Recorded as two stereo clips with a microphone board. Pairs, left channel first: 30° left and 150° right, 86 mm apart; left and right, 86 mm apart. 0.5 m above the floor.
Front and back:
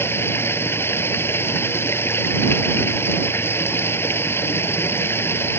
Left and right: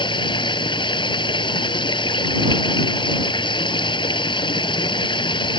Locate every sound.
0.0 s running water: 90° left